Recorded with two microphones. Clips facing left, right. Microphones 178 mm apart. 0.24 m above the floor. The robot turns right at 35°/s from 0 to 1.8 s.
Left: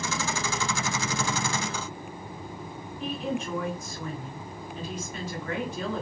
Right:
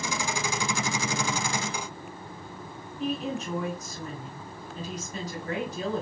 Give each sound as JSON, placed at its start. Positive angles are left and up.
{"t": 3.0, "sound": "a woman speaking", "side_deg": -40, "distance_m": 2.0}